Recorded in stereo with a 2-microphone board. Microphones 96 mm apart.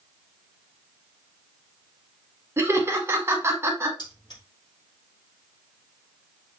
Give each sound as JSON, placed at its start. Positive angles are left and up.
{"t": 2.6, "sound": "laughter", "side_deg": -25, "distance_m": 1.3}
{"t": 4.0, "sound": "keys jangling", "side_deg": 45, "distance_m": 4.0}